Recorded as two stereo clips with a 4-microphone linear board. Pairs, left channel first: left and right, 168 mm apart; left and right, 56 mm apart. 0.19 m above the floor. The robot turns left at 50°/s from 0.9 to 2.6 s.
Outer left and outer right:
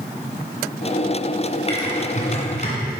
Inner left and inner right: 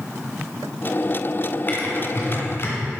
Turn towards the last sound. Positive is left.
turn(degrees=45)  # may be behind; listen again after turning